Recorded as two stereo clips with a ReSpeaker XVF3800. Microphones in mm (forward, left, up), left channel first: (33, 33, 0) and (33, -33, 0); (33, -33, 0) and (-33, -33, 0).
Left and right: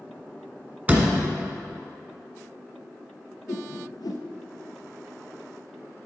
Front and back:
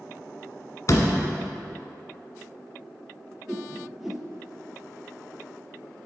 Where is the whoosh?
95° left, 0.8 m.